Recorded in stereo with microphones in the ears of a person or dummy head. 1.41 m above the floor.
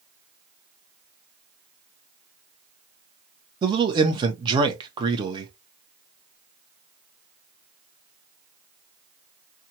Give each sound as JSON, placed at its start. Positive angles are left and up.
{"t": 3.6, "sound": "a man speaking", "side_deg": -25, "distance_m": 0.8}